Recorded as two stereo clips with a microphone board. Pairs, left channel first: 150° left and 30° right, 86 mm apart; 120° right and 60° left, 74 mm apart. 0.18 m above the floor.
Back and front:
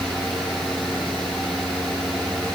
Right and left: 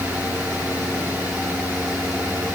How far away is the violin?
I don't hear a violin.